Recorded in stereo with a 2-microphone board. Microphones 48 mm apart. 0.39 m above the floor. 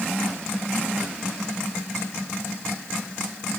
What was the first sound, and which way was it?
Only background noise.